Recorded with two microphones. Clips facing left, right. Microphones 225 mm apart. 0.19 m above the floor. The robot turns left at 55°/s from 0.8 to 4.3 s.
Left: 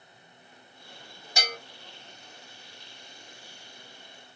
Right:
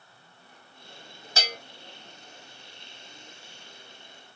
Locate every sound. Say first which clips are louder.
1.4 s a bell: even; 15° left (ahead or behind), 1.0 m; by 1.6 s 5° left (ahead or behind), 1.0 m